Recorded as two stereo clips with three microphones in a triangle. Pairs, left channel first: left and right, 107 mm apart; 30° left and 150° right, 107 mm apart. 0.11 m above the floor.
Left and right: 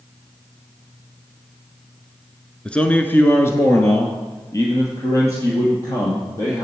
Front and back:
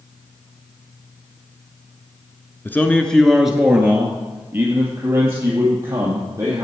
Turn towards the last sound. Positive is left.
turn(degrees=150)